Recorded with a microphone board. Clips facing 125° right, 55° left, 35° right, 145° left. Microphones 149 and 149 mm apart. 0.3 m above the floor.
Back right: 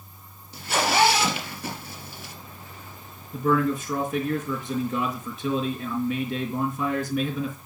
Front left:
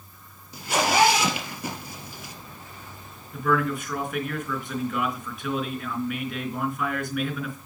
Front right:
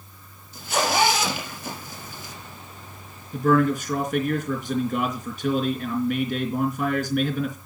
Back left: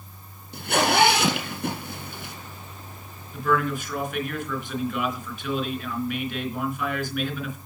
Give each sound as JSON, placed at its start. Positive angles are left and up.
{"t": 0.5, "sound": "a zipper", "azimuth_deg": 135, "distance_m": 2.5}
{"t": 3.3, "sound": "a man speaking", "azimuth_deg": -65, "distance_m": 3.0}